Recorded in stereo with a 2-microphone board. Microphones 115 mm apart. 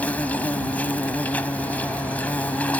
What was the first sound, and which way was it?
An insect, 15° left (ahead or behind).